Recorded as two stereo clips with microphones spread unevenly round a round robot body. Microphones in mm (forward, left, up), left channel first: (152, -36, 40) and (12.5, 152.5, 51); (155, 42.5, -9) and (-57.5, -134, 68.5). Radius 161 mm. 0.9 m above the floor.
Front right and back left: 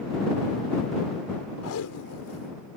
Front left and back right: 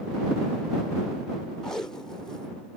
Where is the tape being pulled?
45° right.